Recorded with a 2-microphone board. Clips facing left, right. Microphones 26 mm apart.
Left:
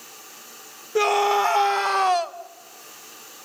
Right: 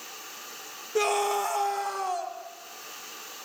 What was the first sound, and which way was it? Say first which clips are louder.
A scream: left 6 dB; 10° left (ahead or behind).